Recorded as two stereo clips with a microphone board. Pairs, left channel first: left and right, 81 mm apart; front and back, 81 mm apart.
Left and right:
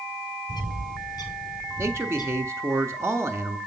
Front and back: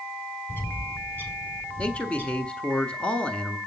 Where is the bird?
65° left, 2.5 m.